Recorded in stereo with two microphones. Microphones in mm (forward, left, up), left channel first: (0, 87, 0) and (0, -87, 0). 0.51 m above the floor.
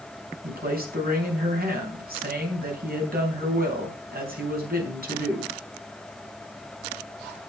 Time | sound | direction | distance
0.4 | a man speaking | 60° right (ahead or behind) | 4 m